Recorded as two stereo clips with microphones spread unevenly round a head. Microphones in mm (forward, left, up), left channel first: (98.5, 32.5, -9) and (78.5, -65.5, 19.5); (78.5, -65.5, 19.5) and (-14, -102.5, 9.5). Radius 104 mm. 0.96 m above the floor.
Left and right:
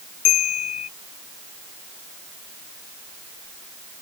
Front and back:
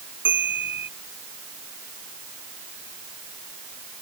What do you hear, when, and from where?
0.2 s a bell: 120° left